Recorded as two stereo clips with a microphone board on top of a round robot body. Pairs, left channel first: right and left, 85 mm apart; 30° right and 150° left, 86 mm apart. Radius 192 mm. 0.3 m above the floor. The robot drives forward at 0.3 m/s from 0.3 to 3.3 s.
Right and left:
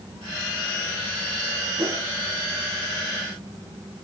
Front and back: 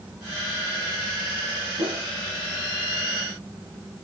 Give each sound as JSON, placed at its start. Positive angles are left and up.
{"t": 1.8, "sound": "a whoosh", "azimuth_deg": 135, "distance_m": 1.2}